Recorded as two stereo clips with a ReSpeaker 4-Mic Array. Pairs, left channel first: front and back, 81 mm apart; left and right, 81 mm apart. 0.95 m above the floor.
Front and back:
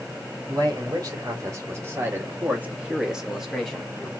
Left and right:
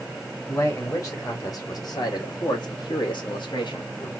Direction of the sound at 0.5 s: 140° left.